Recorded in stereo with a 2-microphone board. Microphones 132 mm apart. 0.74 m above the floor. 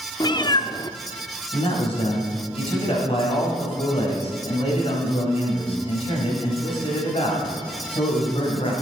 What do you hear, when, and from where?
0.2 s a cat meowing: 35° left (ahead or behind), 0.6 m
1.5 s a man speaking: 50° left (ahead or behind), 5 m